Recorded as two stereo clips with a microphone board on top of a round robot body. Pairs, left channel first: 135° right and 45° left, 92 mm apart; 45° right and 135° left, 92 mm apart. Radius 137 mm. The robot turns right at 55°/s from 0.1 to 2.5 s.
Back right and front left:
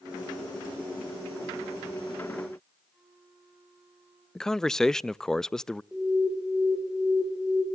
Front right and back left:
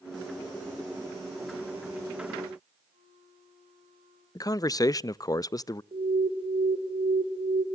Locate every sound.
2.9 s a flute: 130° left, 7 m
4.3 s a man speaking: 55° right, 0.5 m
5.9 s an alarm: 130° left, 5 m